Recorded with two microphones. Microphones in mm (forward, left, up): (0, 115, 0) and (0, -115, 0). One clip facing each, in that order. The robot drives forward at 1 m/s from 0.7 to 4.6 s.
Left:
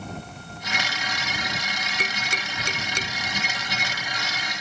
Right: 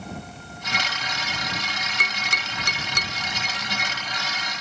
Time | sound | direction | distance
2.0 | tapping | 25° left (ahead or behind) | ?